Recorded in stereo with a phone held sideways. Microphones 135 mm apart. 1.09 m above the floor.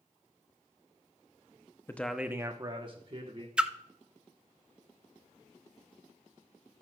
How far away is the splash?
About 0.6 m.